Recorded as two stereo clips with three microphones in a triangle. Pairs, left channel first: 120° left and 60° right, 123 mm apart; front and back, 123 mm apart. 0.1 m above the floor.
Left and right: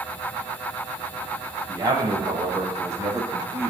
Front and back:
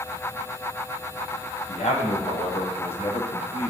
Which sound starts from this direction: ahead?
A man speaking, at 1.7 s.